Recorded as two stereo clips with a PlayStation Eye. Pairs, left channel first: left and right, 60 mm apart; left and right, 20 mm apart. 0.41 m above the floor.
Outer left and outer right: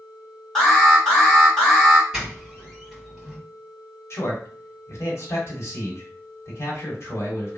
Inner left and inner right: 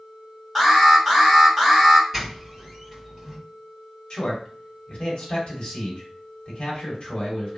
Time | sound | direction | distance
0.6 | an alarm | 10° left (ahead or behind) | 1.7 m
2.1 | a doorbell | 10° right (ahead or behind) | 1.9 m
4.1 | a man speaking | 55° left (ahead or behind) | 1.4 m